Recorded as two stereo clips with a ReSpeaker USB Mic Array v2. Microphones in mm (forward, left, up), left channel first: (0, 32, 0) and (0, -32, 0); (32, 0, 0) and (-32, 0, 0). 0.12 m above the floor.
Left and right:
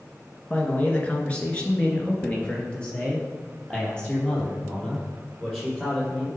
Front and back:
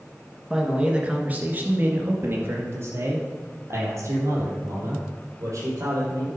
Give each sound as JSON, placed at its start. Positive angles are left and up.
{"t": 0.5, "sound": "a man speaking", "azimuth_deg": 115, "distance_m": 1.6}